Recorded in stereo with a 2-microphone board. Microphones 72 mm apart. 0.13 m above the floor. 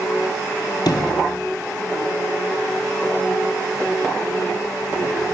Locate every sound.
0.8 s a sliding door: 70° left (ahead or behind), 1.9 m